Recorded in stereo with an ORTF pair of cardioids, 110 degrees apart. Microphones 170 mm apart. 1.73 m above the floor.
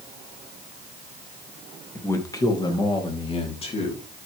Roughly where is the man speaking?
Ahead.